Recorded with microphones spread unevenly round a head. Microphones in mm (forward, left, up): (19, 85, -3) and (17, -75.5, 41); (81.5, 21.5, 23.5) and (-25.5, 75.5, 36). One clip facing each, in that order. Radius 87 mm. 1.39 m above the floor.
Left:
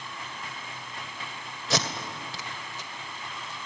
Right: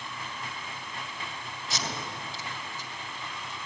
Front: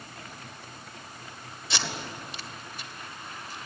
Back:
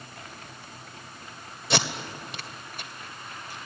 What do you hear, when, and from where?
1.7 s tape being pulled: 130° left, 2.0 m